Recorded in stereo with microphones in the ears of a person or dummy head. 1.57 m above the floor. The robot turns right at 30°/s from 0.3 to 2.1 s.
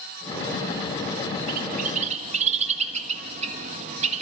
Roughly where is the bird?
Right.